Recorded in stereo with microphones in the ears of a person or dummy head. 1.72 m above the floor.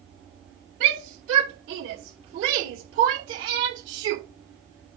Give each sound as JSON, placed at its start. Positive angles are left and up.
{"t": 0.8, "sound": "a shout", "side_deg": -85, "distance_m": 3.5}